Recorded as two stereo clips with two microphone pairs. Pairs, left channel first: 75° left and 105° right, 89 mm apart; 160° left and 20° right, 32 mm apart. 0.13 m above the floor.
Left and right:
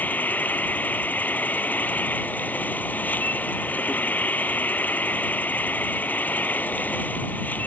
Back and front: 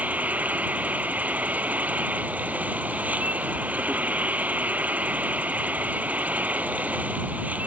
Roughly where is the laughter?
No laughter in this recording.